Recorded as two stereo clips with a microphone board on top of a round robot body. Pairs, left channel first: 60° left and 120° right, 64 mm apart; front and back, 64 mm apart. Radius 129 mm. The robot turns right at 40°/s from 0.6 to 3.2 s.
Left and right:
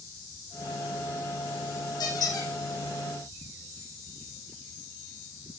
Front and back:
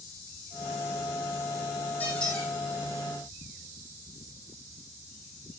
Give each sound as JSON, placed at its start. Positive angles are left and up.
{"t": 2.0, "sound": "a squeak", "azimuth_deg": 70, "distance_m": 6.5}